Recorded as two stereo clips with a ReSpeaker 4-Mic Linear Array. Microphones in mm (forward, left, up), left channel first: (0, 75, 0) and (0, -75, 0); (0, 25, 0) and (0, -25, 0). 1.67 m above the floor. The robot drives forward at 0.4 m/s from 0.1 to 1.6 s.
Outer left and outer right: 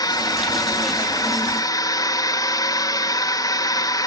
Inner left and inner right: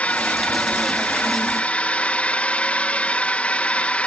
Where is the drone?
25° left (ahead or behind).